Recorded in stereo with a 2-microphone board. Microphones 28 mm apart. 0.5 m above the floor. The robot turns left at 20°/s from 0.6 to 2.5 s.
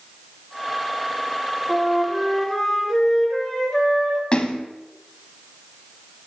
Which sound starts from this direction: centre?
A flute, at 1.7 s.